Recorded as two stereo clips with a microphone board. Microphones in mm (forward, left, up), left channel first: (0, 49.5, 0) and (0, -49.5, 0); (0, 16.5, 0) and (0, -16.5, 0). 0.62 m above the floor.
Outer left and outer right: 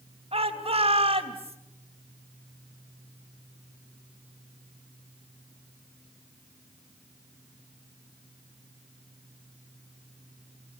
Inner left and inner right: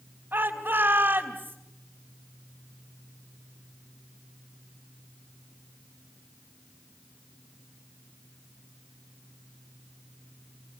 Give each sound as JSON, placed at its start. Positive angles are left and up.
{"t": 0.3, "sound": "a shout", "side_deg": -60, "distance_m": 3.0}